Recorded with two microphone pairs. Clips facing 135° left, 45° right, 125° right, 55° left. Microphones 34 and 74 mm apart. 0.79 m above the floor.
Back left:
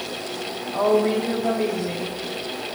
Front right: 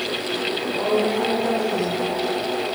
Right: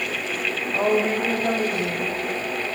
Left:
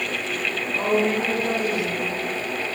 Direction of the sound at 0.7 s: 170° right.